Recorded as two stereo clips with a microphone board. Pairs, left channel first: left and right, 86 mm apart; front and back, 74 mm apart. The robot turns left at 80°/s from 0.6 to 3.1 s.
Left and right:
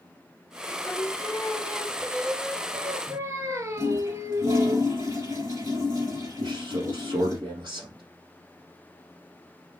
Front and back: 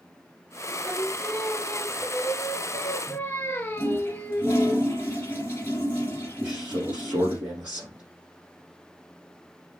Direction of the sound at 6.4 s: 115° right.